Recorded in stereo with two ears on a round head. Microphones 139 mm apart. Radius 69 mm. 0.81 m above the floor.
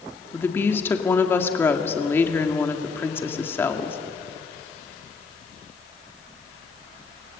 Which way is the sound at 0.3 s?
15° left (ahead or behind).